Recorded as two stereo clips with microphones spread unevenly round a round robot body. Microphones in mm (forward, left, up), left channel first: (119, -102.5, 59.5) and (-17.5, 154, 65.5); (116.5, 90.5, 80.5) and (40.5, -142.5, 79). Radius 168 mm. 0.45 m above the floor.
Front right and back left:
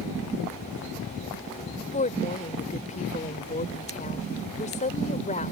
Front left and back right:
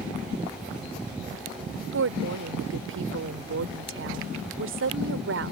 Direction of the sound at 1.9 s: 125° right.